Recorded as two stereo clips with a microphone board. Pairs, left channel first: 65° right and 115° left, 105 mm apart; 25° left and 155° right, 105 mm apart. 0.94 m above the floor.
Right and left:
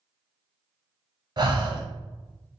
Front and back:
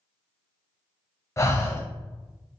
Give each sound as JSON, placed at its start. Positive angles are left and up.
{"t": 1.4, "sound": "breathing", "azimuth_deg": 80, "distance_m": 0.6}